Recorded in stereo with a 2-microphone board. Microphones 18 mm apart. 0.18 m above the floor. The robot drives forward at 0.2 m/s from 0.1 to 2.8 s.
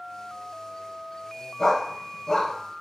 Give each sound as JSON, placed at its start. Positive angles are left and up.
{"t": 1.6, "sound": "a dog barking", "side_deg": 30, "distance_m": 0.9}